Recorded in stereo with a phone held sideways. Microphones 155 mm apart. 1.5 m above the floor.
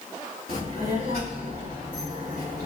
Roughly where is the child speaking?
Right.